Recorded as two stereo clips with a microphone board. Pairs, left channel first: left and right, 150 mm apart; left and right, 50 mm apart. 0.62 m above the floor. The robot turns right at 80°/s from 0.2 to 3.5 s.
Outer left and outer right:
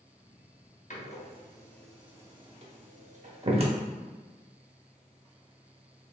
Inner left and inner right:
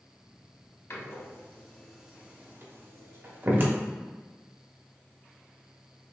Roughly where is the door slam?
Left.